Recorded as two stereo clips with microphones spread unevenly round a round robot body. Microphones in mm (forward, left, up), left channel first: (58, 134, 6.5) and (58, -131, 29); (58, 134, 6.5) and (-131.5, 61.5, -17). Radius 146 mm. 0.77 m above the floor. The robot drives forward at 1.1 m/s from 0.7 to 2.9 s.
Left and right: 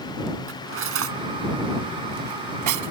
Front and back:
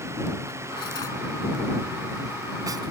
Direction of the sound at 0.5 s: 50° right.